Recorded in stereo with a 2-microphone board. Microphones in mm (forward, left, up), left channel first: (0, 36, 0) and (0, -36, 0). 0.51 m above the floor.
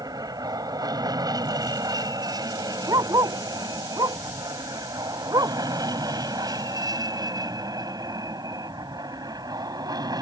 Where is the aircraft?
60° right (ahead or behind); by 10.2 s 65° right (ahead or behind).